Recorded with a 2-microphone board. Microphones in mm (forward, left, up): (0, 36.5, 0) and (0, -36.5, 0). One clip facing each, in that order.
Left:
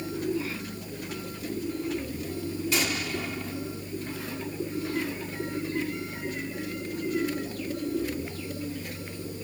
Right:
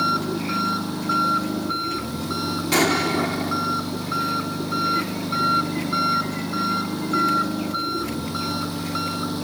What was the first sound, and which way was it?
An engine running, 80° right.